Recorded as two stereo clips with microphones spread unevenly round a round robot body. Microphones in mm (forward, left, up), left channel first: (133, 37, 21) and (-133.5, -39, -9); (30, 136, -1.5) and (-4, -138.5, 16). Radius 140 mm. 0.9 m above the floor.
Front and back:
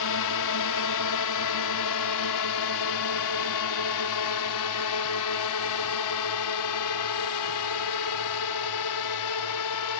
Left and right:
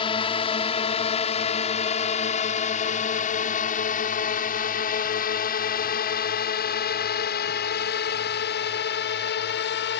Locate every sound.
0.0 s a drone: 15° left; by 10.0 s 35° left